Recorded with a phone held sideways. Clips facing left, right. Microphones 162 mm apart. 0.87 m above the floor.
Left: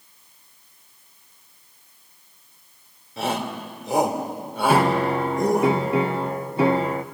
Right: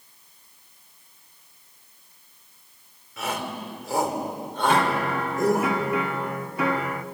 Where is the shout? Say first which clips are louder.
Left 4 dB; 35° left (ahead or behind), 3.5 m; by 5.7 s 5° right (ahead or behind), 4 m.